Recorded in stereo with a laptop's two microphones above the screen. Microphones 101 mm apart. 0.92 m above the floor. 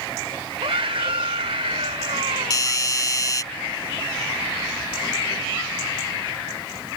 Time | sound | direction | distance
0.6 | a scream | 70° right (ahead or behind) | ?
2.5 | a doorbell | 40° left (ahead or behind) | ?